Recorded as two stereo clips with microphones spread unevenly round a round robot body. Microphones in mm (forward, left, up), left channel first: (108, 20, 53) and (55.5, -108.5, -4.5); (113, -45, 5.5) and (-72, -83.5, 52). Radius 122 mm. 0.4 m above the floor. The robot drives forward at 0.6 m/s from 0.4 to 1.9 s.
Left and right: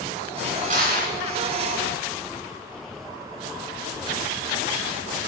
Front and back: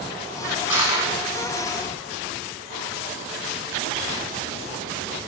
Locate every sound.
0.7 s crushing: 95° right, 2.5 m; by 1.1 s 100° right, 2.5 m